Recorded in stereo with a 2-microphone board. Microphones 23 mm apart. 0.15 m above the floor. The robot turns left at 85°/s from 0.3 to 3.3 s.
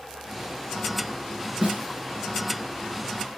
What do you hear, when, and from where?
1.6 s a snare drum: 60° right (ahead or behind), 2.5 m